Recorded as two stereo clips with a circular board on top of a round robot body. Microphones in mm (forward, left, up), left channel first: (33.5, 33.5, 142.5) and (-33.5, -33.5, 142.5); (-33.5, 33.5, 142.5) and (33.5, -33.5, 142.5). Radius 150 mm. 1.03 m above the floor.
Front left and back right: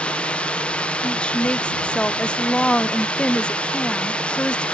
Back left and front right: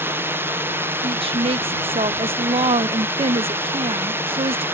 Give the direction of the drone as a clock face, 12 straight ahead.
1 o'clock.